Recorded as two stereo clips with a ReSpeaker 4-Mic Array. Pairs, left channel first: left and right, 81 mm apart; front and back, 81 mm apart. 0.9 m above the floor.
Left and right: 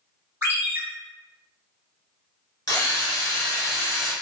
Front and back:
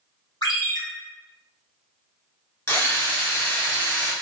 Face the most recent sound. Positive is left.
turn(degrees=55)